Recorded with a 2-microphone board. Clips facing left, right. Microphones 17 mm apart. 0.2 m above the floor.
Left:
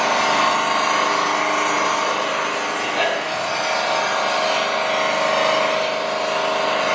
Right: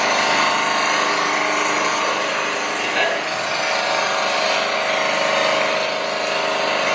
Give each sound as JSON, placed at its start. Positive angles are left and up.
{"t": 0.0, "sound": "an engine running", "side_deg": -70, "distance_m": 2.0}